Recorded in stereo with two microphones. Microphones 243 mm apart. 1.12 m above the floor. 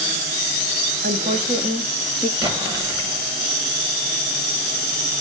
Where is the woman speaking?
40° right (ahead or behind), 2.5 m; by 2.3 s 5° left (ahead or behind), 2.5 m.